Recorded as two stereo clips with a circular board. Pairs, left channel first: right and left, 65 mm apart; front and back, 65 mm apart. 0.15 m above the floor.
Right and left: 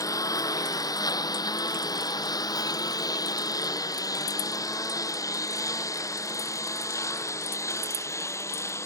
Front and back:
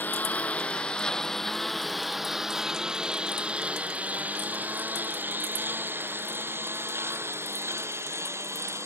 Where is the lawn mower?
65° right; by 8.9 s 130° right.